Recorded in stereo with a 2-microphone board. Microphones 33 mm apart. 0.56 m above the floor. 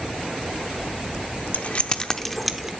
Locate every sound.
1.5 s keys jangling: 50° left (ahead or behind), 0.7 m; by 2.7 s 10° right (ahead or behind), 0.8 m